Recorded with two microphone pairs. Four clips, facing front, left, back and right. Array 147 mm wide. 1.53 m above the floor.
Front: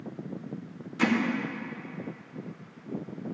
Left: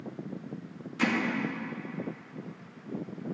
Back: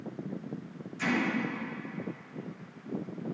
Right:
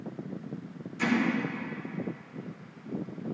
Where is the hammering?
25° left, 2.5 m.